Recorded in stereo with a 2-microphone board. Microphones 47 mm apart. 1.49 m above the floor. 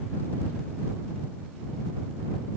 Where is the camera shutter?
No camera shutter in this recording.